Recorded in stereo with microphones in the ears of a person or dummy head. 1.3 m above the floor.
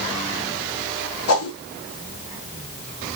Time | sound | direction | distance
1.3 | a whoosh | 80° left | 0.9 m